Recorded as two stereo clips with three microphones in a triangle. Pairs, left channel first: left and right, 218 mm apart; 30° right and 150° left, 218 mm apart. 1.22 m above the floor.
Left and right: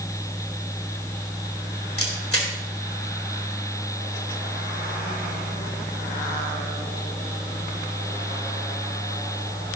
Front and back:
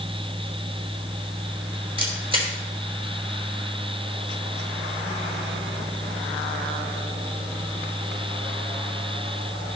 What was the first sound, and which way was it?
A camera shutter, 85° left.